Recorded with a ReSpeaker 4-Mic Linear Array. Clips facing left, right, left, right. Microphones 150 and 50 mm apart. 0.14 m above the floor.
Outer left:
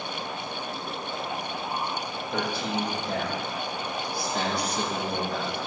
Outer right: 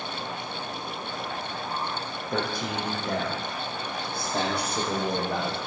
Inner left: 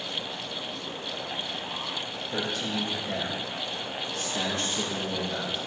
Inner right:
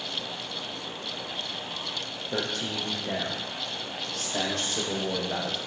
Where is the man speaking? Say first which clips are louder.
Even, even; 50° right (ahead or behind), 5 m; by 5.6 s 75° right (ahead or behind), 5 m.